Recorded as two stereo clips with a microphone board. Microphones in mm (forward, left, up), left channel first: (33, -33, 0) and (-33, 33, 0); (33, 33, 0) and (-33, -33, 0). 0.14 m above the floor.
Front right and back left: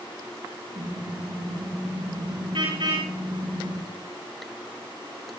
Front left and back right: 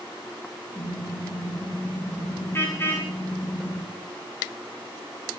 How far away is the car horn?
About 7 m.